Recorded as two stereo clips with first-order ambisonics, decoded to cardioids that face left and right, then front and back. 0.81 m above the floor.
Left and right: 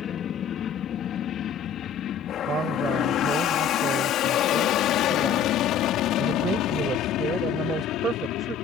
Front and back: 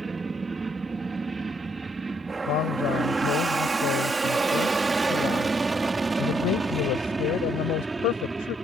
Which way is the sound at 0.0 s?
120° left.